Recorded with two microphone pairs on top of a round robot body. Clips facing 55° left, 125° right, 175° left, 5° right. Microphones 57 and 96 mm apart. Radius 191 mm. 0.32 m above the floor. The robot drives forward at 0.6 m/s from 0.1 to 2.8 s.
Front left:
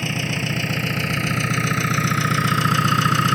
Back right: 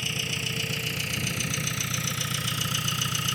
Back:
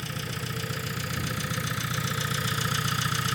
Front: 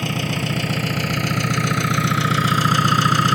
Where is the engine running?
10° left; by 3.4 s 15° left.